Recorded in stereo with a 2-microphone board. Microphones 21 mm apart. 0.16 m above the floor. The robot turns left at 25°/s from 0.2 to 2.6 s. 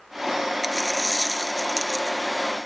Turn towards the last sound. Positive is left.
turn(degrees=135)